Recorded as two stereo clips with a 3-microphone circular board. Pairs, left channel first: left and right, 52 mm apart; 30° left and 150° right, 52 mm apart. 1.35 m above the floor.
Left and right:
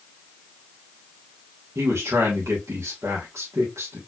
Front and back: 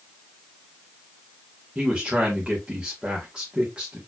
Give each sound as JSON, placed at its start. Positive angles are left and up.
{"t": 1.8, "sound": "a man speaking", "azimuth_deg": -80, "distance_m": 1.4}